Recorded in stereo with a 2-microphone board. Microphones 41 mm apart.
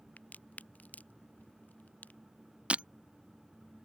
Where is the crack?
40° left (ahead or behind).